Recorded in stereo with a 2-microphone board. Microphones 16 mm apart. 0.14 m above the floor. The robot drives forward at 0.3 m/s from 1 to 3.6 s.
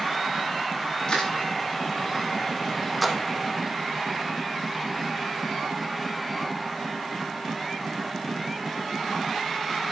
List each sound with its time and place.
1.1 s crushing: 50° left (ahead or behind), 8 m
3.0 s a splash: centre (ahead or behind), 2 m